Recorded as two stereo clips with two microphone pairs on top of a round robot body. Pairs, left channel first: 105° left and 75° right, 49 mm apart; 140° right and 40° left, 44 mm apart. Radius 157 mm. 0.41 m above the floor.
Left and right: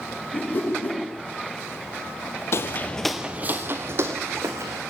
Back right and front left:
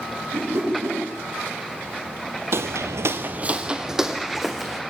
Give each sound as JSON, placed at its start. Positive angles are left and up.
{"t": 0.3, "sound": "a whoosh", "azimuth_deg": 60, "distance_m": 8.0}
{"t": 2.5, "sound": "footsteps", "azimuth_deg": 70, "distance_m": 0.9}